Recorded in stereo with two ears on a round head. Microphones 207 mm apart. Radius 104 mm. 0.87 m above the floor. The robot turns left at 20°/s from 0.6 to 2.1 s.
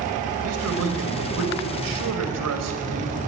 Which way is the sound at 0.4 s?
70° right.